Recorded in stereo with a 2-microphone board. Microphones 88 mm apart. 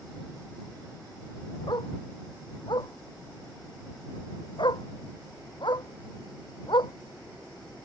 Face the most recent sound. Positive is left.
turn(degrees=65)  # may be behind; listen again after turning